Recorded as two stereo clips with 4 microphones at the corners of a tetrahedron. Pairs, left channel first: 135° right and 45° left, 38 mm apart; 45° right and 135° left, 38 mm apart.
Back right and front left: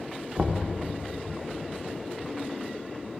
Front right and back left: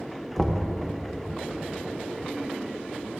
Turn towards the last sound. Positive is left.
turn(degrees=25)